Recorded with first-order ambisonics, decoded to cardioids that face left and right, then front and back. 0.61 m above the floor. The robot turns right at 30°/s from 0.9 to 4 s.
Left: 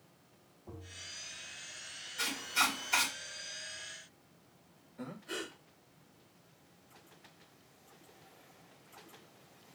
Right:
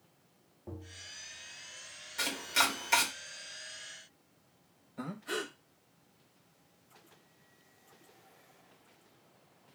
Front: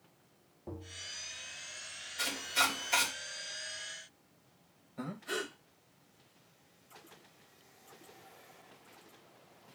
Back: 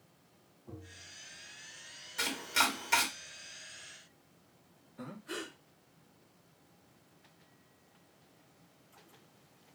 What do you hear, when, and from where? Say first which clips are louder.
0.7 s tapping: right 1 dB, front 6 dB; 30° right, 0.9 m; by 1.1 s 20° right, 0.9 m
2.2 s chopping: right 2 dB, back 1 dB; 135° right, 1.3 m; by 3.1 s 110° right, 1.3 m
5.0 s breathing: right 4 dB, front 4 dB; 50° right, 1.0 m